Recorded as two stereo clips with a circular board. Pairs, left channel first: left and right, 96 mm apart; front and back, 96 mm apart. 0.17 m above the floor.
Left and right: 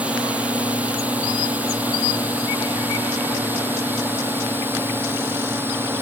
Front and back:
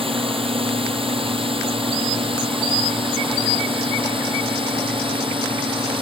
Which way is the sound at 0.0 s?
165° right.